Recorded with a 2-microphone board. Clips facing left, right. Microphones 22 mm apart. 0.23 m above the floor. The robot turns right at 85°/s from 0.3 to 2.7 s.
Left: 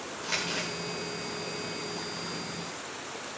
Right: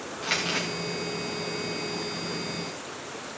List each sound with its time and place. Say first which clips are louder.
0.2 s crumpling: right 4 dB; 80° right, 10 m; by 0.7 s 65° right (ahead or behind), 10 m